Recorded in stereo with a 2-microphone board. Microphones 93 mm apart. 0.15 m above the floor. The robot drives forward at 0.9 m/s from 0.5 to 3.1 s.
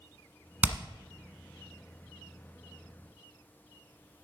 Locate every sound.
0.6 s hammering: 20° right (ahead or behind), 1.0 m